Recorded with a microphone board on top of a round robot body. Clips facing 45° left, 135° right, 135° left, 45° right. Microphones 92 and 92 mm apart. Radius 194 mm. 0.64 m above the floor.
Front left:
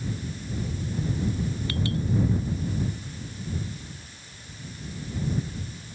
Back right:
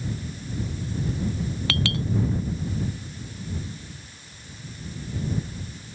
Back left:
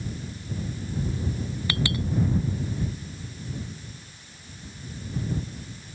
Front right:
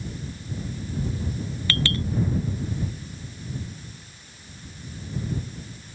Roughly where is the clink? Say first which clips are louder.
Back right 3 dB, front right 1 dB; behind right.